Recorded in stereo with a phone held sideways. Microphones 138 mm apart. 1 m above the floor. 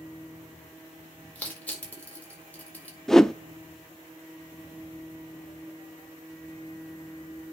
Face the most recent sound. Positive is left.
turn(degrees=5)  # may be behind; listen again after turning